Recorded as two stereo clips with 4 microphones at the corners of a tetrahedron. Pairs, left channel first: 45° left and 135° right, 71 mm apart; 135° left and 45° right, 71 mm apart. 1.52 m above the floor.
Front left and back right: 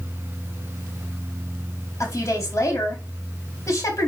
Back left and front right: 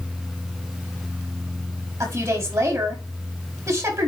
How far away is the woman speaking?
About 4 m.